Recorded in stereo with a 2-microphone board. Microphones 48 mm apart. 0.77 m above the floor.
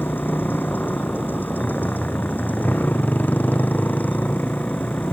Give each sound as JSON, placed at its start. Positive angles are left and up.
{"t": 0.0, "sound": "a motorcycle", "side_deg": 40}